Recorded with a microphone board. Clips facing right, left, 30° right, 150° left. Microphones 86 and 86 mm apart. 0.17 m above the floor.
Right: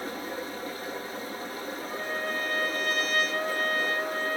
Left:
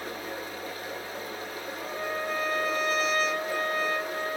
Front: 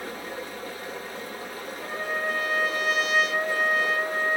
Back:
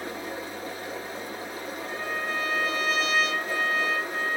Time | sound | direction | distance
0.0 | running water | 145° right | 1.7 m
1.8 | a trumpet | 110° right | 3 m